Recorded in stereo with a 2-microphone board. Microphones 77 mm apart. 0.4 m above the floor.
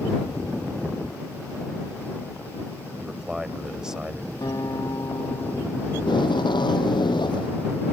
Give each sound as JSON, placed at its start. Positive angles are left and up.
{"t": 3.0, "sound": "a man speaking", "side_deg": -10}
{"t": 4.4, "sound": "a guitar", "side_deg": 55}
{"t": 6.0, "sound": "tape being pulled", "side_deg": 85}